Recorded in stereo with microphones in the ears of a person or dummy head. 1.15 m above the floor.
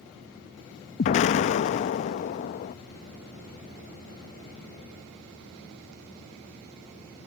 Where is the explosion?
40° left (ahead or behind).